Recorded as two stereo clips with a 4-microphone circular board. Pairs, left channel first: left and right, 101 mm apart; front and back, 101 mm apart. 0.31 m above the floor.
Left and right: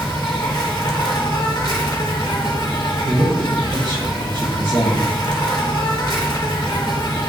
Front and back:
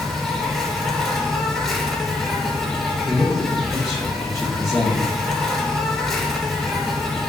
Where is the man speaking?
95° right, 1.6 m.